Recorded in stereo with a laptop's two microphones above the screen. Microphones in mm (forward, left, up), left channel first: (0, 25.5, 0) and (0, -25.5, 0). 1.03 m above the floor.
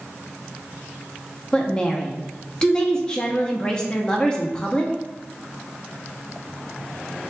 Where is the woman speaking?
20° left (ahead or behind), 0.9 m.